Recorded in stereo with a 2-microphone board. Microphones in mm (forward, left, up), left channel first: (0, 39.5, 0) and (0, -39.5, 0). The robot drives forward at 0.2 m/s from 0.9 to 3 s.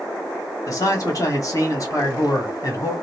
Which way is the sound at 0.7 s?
45° left (ahead or behind).